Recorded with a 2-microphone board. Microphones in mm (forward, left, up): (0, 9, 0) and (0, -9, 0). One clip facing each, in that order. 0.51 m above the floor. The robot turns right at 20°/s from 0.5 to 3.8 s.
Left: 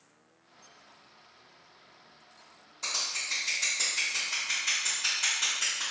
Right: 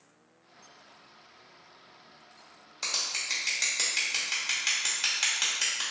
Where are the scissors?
50° right (ahead or behind), 1.2 m.